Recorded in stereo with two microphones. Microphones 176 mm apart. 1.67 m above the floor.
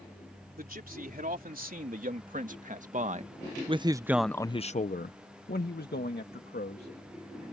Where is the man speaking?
60° right (ahead or behind); by 6.9 s 75° left (ahead or behind).